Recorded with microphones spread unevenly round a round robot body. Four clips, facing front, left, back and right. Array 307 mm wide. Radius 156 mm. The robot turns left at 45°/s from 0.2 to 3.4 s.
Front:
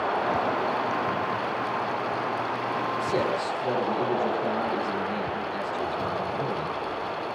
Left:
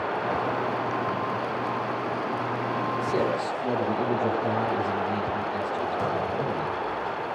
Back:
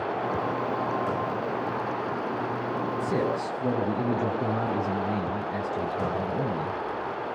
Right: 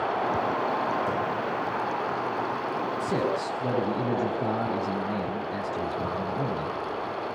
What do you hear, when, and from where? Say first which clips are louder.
3.0 s a man speaking: left 1 dB, even; 135° right, 5.5 m; by 6.8 s 150° right, 5.5 m